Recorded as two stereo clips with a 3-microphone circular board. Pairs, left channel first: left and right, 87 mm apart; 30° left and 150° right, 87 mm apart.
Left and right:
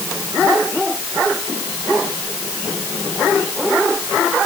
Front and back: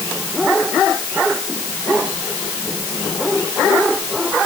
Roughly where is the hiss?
No hiss in this recording.